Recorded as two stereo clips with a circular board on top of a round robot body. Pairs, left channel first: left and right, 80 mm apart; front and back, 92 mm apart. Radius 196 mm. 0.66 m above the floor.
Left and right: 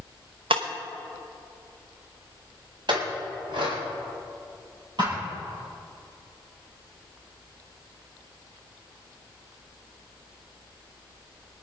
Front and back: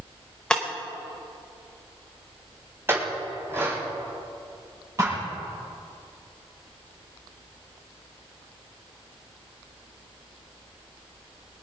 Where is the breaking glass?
85° right, 0.8 m.